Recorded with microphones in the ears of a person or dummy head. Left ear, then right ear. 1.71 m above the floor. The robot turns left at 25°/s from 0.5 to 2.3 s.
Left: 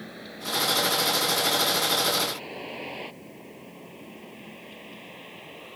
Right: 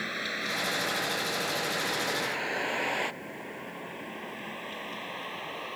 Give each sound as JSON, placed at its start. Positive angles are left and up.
{"t": 0.0, "sound": "a vehicle", "side_deg": -70}